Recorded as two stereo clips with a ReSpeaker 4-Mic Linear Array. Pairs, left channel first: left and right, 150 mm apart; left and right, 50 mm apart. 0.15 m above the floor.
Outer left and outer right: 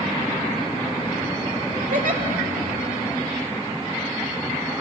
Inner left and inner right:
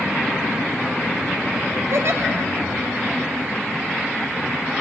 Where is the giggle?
65° right (ahead or behind), 0.9 m.